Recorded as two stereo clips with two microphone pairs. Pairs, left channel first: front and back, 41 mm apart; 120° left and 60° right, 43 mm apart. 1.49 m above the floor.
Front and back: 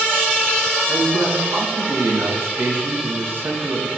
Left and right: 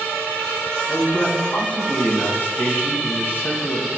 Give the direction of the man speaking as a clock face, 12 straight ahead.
7 o'clock.